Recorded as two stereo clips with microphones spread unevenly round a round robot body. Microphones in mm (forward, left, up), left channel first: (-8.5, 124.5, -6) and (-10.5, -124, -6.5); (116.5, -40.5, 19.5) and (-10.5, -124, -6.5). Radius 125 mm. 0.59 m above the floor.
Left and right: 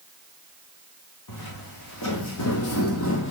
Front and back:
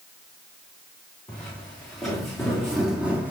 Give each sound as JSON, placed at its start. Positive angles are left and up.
{"t": 1.3, "sound": "footsteps", "azimuth_deg": 100, "distance_m": 3.0}